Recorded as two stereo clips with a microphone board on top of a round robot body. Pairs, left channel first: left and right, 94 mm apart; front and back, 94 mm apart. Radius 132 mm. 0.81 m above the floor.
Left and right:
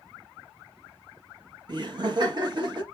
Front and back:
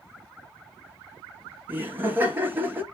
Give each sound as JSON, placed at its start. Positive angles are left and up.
{"t": 1.7, "sound": "laughter", "azimuth_deg": -115, "distance_m": 1.6}